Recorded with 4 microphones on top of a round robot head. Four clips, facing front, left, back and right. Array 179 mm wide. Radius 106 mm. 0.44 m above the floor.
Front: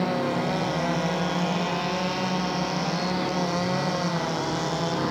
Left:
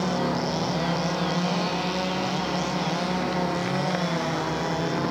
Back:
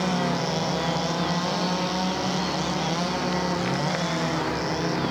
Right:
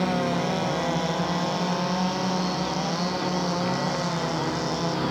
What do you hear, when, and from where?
Only background noise.